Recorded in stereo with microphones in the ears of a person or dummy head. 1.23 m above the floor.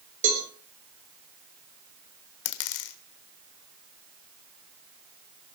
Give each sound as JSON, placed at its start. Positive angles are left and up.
{"t": 0.2, "sound": "a cowbell", "side_deg": -40, "distance_m": 4.0}
{"t": 2.5, "sound": "a dropped coin", "side_deg": 65, "distance_m": 1.6}